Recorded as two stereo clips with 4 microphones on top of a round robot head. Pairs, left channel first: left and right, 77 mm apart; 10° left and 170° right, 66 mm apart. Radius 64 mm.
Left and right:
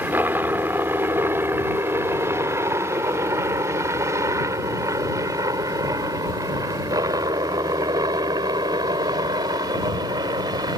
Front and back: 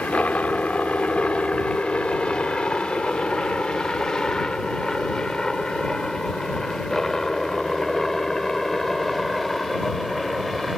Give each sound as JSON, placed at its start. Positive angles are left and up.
{"t": 0.0, "sound": "a helicopter", "azimuth_deg": -50}